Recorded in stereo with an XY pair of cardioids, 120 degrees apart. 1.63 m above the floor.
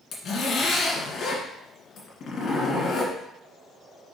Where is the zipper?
55° left, 2 m.